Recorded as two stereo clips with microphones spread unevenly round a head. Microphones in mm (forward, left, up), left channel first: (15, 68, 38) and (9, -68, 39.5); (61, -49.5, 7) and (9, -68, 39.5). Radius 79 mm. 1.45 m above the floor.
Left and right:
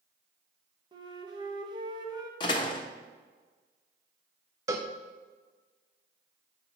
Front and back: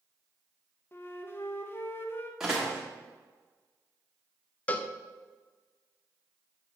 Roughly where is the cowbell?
Right.